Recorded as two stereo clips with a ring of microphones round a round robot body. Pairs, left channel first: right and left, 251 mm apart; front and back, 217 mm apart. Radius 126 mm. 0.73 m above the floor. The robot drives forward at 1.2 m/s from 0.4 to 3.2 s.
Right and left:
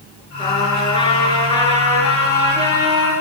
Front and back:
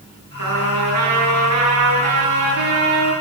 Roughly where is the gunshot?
No gunshot in this recording.